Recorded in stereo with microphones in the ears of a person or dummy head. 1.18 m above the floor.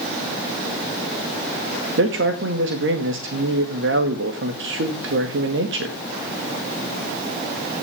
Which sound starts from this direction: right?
A man speaking, at 2.0 s.